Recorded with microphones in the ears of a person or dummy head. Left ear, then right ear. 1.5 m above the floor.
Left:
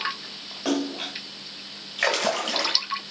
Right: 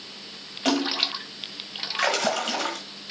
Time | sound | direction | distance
0.7 | a splash | 20° right (ahead or behind) | 2 m
2.0 | a splash | 5° left (ahead or behind) | 1.5 m